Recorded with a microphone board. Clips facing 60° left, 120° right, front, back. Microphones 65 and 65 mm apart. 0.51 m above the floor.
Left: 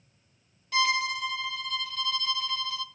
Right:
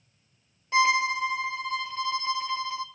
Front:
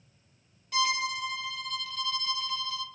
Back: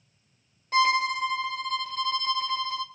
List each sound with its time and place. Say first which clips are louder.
0.7 s a violin: right 4 dB, back 7 dB; 170° right, 0.6 m